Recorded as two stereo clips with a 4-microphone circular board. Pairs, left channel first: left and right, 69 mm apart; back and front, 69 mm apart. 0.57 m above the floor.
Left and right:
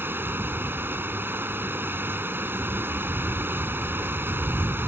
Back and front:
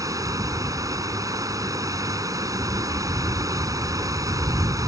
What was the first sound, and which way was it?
Running water, 30° right.